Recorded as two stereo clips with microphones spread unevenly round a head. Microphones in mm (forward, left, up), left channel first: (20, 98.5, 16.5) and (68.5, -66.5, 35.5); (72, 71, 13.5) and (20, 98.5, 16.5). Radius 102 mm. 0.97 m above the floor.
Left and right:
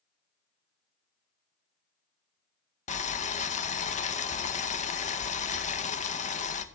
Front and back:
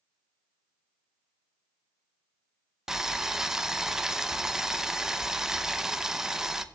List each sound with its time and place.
2.9 s boiling: 70° left, 0.9 m